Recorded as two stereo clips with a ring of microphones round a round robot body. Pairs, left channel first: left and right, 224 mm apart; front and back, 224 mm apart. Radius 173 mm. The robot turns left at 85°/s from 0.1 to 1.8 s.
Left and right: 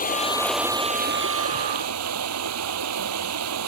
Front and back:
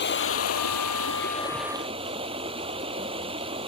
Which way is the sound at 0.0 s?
40° left.